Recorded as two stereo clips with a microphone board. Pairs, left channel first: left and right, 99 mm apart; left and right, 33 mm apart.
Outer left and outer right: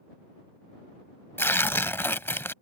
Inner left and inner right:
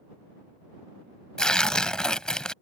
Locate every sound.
1.4 s tearing paper: 25° left (ahead or behind)